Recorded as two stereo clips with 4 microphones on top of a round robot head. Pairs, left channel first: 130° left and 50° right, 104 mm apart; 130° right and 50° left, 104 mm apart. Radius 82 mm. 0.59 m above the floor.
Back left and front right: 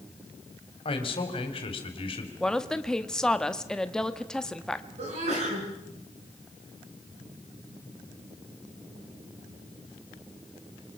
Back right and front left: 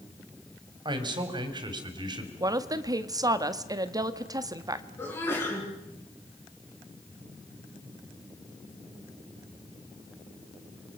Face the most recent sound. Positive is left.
turn(degrees=-65)